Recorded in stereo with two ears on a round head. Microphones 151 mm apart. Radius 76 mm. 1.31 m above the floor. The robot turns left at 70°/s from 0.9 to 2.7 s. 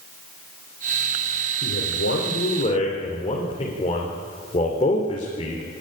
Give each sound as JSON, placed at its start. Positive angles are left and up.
{"t": 1.6, "sound": "a man speaking", "side_deg": 70, "distance_m": 3.5}